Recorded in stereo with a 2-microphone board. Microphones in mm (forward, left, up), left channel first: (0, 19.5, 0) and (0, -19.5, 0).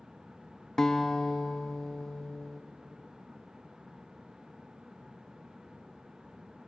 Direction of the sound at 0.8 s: 15° left (ahead or behind).